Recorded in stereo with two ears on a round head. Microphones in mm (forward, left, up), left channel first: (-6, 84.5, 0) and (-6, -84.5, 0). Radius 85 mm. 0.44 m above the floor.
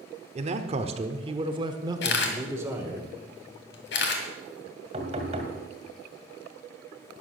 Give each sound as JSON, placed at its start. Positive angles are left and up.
{"t": 0.3, "sound": "a man speaking", "side_deg": -35, "distance_m": 1.2}
{"t": 2.0, "sound": "a camera shutter", "side_deg": 60, "distance_m": 2.5}
{"t": 4.9, "sound": "knocking", "side_deg": -35, "distance_m": 2.0}